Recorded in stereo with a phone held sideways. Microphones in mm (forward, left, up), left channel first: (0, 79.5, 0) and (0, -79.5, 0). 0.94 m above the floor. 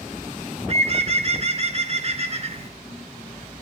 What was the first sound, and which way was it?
A bird, 45° right (ahead or behind).